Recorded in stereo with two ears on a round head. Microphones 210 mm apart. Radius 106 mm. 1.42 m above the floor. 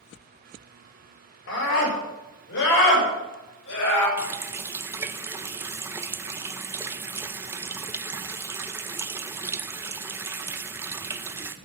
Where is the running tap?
10° right (ahead or behind), 0.5 m.